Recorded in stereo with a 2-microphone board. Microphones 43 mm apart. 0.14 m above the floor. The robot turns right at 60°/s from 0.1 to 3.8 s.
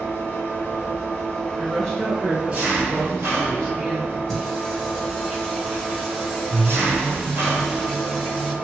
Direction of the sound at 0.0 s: 75° left.